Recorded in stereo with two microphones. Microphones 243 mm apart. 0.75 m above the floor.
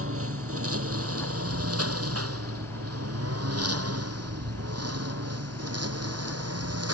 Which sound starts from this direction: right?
A lawn mower, at 0.0 s.